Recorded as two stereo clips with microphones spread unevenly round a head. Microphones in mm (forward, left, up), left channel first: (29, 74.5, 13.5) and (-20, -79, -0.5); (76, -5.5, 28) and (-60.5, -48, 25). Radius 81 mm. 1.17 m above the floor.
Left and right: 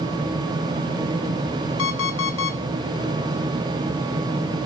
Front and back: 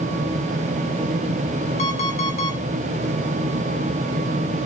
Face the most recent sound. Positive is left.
turn(degrees=70)